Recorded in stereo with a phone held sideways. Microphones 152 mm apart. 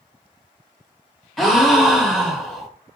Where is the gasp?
Centre (ahead or behind), 0.6 m.